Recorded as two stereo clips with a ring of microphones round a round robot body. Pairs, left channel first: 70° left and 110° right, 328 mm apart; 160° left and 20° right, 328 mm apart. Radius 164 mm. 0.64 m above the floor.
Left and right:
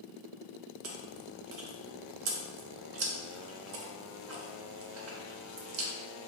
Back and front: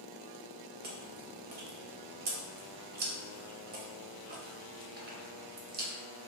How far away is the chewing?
About 0.5 m.